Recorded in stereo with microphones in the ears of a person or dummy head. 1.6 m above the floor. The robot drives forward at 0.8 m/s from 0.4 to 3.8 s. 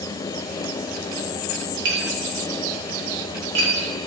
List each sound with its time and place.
1.9 s tapping: 70° right (ahead or behind), 1.8 m; by 3.7 s 60° right (ahead or behind), 1.9 m